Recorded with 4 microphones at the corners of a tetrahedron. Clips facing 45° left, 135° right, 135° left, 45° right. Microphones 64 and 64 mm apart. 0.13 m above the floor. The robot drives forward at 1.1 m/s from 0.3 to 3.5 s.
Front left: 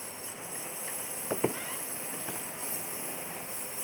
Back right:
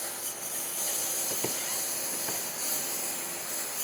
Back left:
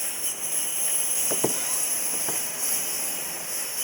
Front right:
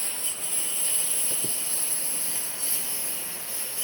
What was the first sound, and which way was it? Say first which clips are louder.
A lawn mower: back right 2 dB, back left 1 dB; 150° right.